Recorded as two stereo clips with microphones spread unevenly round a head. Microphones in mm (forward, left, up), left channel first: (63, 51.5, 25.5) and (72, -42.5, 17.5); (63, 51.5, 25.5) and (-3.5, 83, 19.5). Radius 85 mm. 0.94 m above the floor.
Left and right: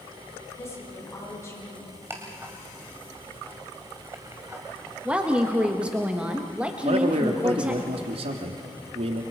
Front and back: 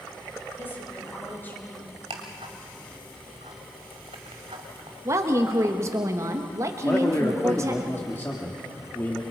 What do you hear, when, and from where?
0.5 s a woman speaking: 35° left, 8.5 m
2.1 s ticking: 165° right, 1.8 m
5.0 s a woman speaking: 160° right, 1.3 m
6.8 s a man speaking: 100° right, 1.9 m